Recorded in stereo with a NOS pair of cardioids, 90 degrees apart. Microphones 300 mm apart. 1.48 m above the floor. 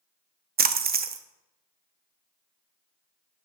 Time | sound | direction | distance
0.6 | a splash | 30° right | 0.6 m